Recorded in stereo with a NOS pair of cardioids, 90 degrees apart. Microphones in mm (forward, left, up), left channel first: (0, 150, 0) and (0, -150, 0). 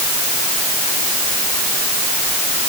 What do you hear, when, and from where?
Only background noise.